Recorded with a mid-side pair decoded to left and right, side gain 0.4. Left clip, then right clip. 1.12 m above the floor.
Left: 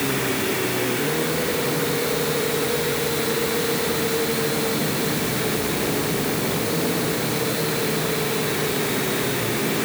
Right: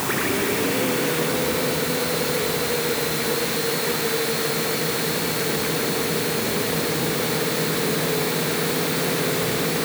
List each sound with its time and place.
Only background noise.